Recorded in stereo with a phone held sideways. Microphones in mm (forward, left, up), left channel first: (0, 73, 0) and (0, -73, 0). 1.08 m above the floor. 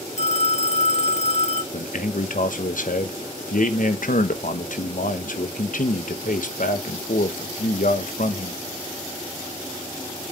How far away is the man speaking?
About 1.1 m.